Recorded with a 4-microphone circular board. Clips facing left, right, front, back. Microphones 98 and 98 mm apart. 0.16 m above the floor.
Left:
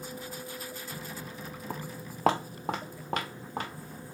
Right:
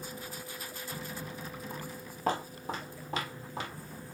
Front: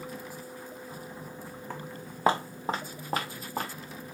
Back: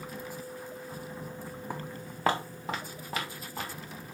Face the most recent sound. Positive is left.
turn(degrees=45)